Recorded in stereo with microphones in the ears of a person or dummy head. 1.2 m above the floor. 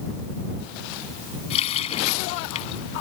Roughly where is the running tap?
Left.